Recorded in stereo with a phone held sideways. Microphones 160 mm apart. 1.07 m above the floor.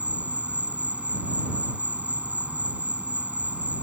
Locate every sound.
0.0 s an insect: 10° right (ahead or behind)